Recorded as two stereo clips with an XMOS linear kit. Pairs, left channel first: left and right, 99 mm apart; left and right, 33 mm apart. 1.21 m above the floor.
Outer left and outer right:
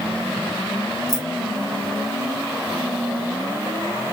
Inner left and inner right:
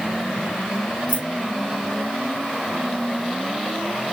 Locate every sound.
1.1 s keys jangling: 40° right (ahead or behind), 1.0 m